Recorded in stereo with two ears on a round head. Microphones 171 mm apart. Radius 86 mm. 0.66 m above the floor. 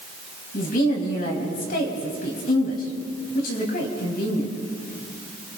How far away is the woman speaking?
About 4.5 m.